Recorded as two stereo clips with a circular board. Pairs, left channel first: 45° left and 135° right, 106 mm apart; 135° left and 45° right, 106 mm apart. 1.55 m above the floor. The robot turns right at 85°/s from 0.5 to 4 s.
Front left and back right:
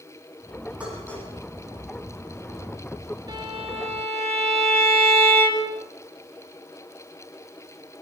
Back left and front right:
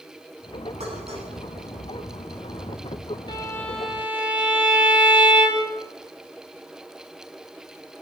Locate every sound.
0.8 s dishes clattering: 55° right, 10 m; by 1.3 s 15° right, 10 m
3.3 s a violin: straight behind, 5 m; by 5.8 s 120° right, 5 m